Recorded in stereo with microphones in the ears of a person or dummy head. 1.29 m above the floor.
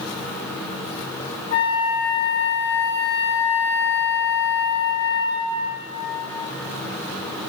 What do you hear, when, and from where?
1.5 s a flute: 50° left (ahead or behind), 1.7 m